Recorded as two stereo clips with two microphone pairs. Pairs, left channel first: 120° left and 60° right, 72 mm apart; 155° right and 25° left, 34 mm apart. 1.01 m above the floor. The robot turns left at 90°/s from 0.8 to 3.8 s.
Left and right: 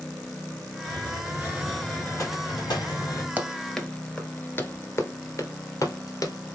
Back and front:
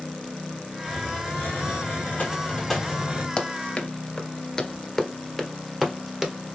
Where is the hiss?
70° right, 3 m; by 3.3 s 70° left, 3 m.